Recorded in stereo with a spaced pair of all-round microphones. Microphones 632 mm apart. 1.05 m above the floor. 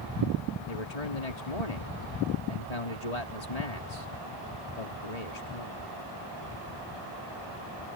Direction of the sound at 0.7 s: 75° left (ahead or behind).